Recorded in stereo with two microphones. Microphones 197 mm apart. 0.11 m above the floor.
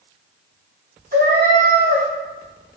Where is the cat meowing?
50° right (ahead or behind), 1.0 m.